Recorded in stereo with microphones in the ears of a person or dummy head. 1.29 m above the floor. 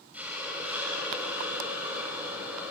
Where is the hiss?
10° right (ahead or behind), 4 m.